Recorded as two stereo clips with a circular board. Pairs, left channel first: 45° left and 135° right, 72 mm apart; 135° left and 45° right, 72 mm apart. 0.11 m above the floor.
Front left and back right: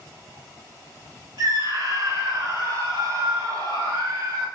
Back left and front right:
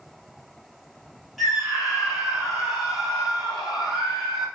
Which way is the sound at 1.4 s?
135° right.